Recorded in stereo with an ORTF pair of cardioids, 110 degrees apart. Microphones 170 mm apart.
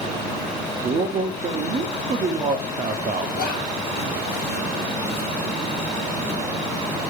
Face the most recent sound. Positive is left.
turn(degrees=70)